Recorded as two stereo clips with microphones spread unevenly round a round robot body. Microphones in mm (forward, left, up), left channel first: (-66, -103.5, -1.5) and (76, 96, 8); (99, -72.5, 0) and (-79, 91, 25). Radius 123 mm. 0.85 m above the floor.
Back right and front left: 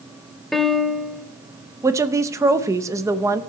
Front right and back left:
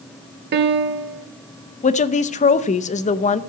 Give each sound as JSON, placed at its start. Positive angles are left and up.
{"t": 0.5, "sound": "a piano", "azimuth_deg": 145, "distance_m": 0.7}
{"t": 1.8, "sound": "a woman speaking", "azimuth_deg": -20, "distance_m": 0.7}